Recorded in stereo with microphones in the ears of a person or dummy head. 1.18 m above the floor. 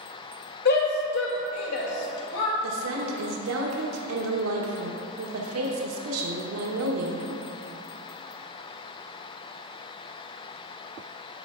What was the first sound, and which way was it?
A shout, 55° left (ahead or behind).